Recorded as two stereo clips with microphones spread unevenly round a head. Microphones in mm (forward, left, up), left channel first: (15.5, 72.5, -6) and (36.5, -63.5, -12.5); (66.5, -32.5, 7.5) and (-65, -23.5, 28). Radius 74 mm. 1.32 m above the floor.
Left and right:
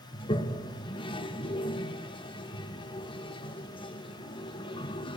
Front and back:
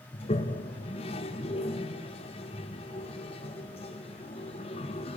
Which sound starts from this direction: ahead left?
A toilet flushing, at 0.1 s.